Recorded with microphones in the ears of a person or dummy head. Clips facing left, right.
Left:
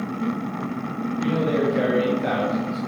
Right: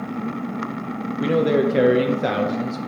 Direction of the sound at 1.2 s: 60° right (ahead or behind).